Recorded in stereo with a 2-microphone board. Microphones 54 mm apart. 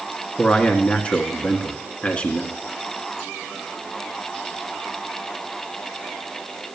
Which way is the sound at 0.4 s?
25° left (ahead or behind).